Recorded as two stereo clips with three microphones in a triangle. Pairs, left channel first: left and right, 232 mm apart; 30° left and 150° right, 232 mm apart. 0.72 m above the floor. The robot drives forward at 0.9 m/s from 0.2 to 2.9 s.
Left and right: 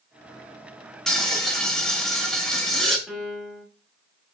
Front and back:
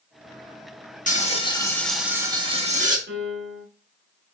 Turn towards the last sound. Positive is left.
turn(degrees=180)